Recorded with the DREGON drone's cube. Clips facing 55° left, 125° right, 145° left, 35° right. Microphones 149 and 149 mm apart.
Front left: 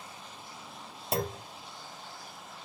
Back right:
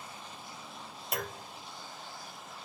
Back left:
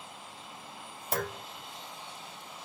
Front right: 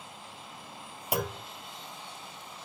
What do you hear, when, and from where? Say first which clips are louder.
1.1 s a clunk: front left 6 dB, front right 2 dB; 30° left, 0.6 m